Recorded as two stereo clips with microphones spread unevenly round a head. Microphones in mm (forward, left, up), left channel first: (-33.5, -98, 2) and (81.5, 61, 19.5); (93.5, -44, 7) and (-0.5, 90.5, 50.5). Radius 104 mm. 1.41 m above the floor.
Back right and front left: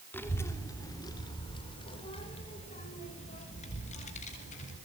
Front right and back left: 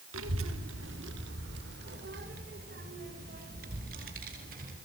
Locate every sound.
0.1 s a child speaking: 150° left, 3 m; by 4.7 s 175° left, 7.5 m